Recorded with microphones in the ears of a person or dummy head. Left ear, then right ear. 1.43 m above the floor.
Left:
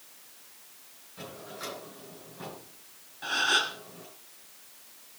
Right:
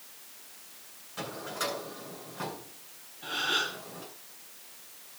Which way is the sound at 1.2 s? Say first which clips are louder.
Right 6 dB; 40° right (ahead or behind).